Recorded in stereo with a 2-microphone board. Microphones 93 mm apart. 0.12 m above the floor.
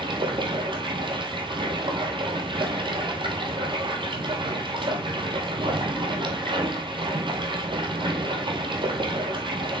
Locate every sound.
0.0 s running water: 60° right (ahead or behind), 1.7 m